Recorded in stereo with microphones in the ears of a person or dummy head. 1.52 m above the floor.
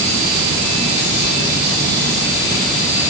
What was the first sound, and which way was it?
Only background noise.